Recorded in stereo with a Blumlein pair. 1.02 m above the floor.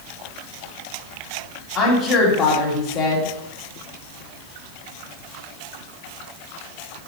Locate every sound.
1.8 s a woman speaking: 25° left, 1.5 m